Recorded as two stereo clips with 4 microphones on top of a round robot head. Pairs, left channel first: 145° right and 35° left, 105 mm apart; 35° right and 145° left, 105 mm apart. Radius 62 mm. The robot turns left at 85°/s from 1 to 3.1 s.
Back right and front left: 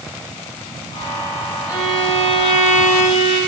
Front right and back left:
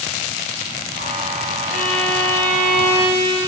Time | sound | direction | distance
1.7 | a violin | 45° right | 3.5 m